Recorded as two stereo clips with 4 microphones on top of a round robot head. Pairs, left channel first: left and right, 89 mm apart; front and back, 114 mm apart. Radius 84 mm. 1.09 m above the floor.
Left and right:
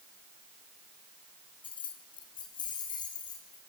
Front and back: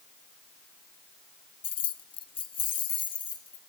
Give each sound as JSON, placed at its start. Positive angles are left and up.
{"t": 1.6, "sound": "keys jangling", "azimuth_deg": 35, "distance_m": 0.6}